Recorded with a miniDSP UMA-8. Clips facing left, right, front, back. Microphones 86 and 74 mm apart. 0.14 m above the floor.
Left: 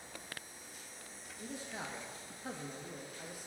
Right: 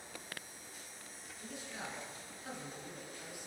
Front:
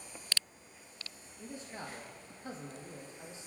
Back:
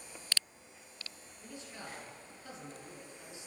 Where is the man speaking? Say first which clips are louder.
Left 2 dB, front 3 dB; 45° left, 3 m.